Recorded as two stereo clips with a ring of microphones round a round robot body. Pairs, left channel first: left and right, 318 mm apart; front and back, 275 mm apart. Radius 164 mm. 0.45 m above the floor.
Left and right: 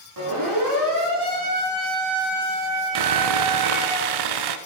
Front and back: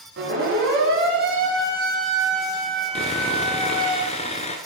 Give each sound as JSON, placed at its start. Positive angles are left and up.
{"t": 0.2, "sound": "a siren", "azimuth_deg": -120, "distance_m": 6.5}
{"t": 3.0, "sound": "sawing", "azimuth_deg": -75, "distance_m": 1.0}